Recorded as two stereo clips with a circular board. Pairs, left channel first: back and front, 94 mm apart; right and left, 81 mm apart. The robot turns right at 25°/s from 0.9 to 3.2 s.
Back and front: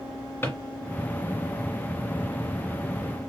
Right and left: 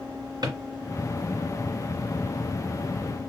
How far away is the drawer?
About 1.9 m.